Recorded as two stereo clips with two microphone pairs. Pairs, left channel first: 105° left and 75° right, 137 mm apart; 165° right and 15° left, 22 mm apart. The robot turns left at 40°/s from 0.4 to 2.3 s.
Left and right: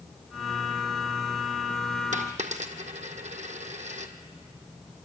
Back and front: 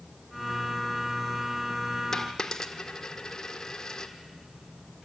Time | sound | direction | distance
2.1 | a dropped coin | 95° right | 1.6 m